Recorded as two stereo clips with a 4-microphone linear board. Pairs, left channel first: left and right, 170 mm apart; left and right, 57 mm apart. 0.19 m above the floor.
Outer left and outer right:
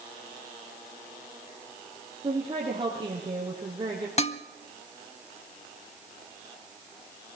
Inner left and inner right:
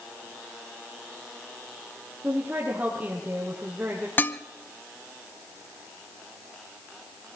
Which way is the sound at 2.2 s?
30° right (ahead or behind).